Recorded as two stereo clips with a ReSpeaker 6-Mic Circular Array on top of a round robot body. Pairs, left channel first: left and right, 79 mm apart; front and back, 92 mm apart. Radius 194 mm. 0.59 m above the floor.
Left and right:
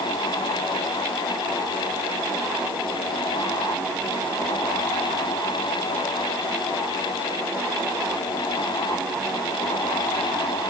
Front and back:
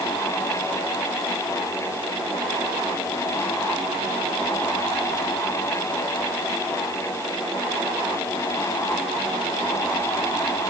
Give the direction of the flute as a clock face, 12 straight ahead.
No flute in this recording.